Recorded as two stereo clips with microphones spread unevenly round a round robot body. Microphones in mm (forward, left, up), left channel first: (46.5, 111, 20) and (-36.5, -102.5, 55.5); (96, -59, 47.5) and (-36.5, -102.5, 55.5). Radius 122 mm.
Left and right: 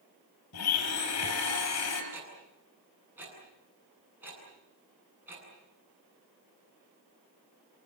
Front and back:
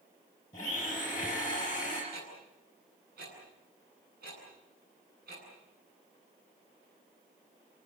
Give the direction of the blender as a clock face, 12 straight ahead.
9 o'clock.